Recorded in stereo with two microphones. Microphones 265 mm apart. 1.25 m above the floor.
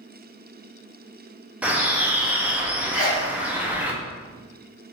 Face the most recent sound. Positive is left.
turn(degrees=60)  # may be behind; listen again after turning